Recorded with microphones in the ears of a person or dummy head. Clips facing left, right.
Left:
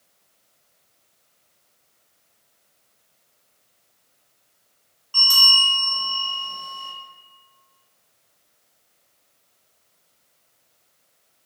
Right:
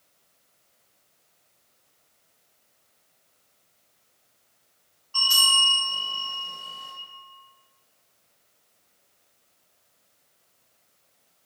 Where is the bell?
55° left (ahead or behind), 1.8 m.